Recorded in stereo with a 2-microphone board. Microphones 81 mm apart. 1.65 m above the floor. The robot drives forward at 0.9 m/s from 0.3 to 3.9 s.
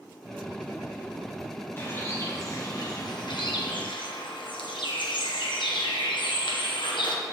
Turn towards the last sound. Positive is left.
turn(degrees=75)  # may be behind; listen again after turning